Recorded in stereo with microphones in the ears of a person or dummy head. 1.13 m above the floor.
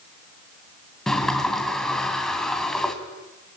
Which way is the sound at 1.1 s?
5° left (ahead or behind).